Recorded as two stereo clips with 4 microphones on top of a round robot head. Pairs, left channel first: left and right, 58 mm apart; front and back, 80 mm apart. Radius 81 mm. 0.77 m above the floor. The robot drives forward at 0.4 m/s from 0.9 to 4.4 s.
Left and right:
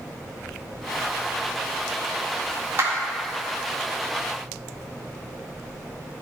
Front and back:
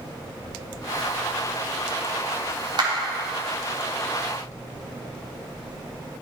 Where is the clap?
145° right, 1.6 m.